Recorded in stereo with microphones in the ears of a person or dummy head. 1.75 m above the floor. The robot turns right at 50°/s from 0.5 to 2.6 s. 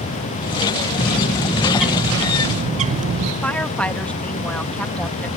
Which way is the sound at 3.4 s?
10° left (ahead or behind).